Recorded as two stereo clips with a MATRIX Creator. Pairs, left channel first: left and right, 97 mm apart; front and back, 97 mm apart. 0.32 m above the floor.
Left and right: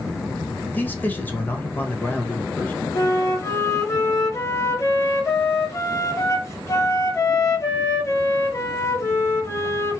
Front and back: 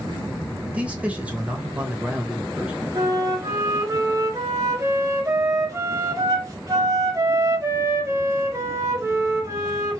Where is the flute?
135° left, 1.1 m.